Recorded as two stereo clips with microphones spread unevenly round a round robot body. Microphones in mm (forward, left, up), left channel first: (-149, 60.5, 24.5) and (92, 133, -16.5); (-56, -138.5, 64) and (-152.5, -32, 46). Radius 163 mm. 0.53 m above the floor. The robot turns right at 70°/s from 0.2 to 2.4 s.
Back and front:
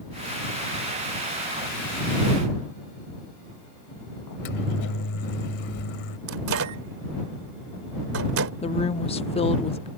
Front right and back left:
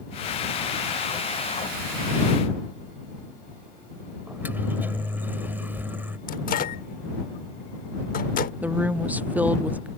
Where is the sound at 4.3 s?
150° right.